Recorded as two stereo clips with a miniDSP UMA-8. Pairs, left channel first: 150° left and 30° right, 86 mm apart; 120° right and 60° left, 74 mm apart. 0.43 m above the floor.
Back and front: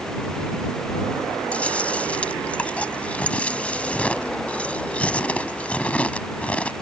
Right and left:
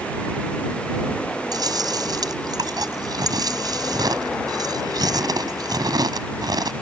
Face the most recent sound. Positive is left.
turn(degrees=75)